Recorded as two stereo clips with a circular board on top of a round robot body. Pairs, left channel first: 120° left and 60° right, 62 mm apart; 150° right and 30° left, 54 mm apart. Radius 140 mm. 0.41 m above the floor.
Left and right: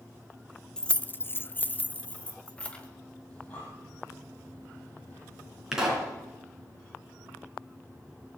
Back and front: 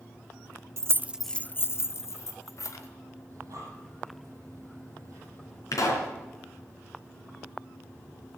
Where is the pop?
140° right, 3.5 m.